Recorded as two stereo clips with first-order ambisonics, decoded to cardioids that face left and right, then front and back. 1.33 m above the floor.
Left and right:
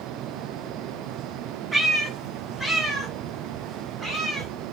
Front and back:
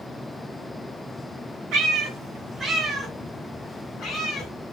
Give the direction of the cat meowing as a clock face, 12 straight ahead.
6 o'clock.